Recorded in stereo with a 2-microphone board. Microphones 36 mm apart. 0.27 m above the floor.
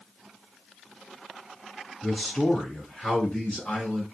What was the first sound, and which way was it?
A man speaking, 5° right (ahead or behind).